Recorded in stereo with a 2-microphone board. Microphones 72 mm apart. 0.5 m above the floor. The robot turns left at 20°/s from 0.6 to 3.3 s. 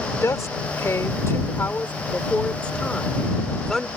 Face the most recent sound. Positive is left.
turn(degrees=5)